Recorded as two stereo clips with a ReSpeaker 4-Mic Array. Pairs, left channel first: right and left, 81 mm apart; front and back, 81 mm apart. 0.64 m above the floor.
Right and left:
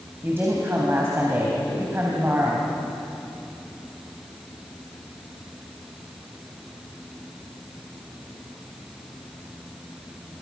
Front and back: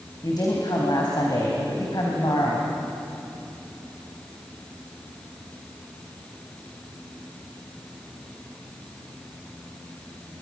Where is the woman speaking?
30° left, 3.5 m.